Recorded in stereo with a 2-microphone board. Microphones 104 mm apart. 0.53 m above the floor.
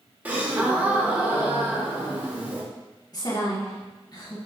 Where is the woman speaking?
40° left (ahead or behind), 1.0 m.